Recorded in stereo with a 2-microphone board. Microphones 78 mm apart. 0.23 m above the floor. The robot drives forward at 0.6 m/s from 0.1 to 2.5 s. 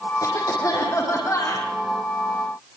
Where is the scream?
No scream in this recording.